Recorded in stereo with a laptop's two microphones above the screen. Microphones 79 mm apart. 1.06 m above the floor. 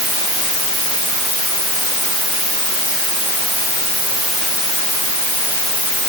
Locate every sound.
Only background noise.